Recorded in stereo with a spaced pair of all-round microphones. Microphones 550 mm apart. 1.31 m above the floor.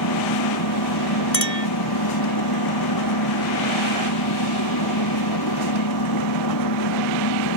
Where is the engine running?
40° left (ahead or behind).